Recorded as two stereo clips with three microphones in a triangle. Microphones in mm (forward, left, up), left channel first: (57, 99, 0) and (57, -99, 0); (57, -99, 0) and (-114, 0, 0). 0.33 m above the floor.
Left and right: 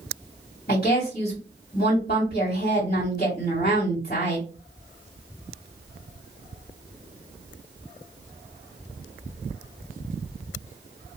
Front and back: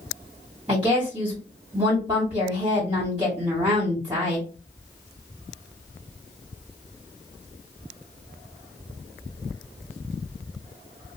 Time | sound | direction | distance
0.7 | a woman speaking | 100° left | 2 m